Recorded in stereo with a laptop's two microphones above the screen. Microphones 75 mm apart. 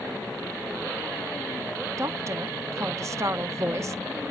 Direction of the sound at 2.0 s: 40° right (ahead or behind).